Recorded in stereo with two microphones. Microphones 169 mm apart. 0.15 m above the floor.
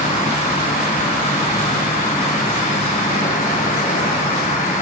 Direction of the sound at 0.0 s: 45° left (ahead or behind).